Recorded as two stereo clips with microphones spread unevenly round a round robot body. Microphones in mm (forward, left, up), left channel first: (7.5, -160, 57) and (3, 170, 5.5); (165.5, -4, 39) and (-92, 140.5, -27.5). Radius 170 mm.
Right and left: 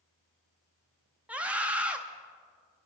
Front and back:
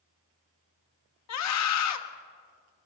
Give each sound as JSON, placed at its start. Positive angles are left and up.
{"t": 1.3, "sound": "a scream", "azimuth_deg": 5, "distance_m": 1.7}